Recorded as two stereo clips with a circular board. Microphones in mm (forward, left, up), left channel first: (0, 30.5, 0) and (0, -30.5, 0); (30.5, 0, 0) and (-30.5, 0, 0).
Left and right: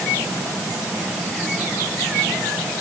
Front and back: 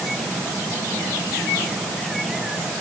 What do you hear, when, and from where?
Only background noise.